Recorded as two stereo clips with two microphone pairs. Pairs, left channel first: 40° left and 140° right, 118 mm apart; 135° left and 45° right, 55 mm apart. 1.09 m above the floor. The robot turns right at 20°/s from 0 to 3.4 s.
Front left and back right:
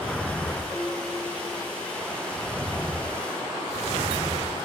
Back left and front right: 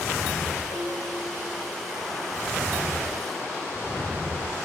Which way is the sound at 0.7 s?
55° right.